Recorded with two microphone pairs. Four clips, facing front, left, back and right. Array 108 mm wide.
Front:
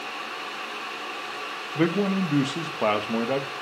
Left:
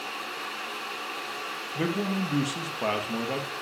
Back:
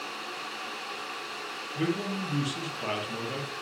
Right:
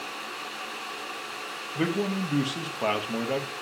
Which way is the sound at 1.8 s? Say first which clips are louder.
Right 1 dB, front 7 dB; 5° right.